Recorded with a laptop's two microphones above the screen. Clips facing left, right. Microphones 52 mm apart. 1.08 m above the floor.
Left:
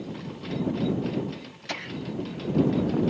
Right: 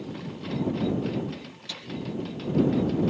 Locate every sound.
1.7 s laughter: 50° left (ahead or behind); by 3.0 s 70° left (ahead or behind)